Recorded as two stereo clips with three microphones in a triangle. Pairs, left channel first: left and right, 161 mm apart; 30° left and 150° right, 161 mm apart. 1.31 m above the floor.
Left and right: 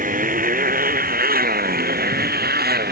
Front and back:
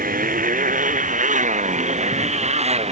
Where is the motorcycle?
120° right; by 2.9 s 100° right.